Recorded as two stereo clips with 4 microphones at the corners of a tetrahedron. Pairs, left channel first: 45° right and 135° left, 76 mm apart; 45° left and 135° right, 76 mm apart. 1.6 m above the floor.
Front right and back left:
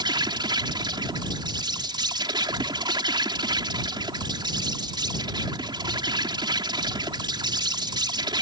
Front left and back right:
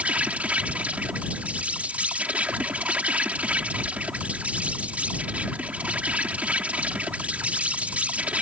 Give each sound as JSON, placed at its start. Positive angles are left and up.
{"t": 0.0, "sound": "an insect", "azimuth_deg": 155}